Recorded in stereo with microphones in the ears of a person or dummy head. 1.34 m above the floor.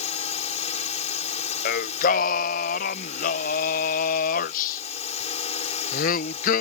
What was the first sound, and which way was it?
A drone, 30° left (ahead or behind).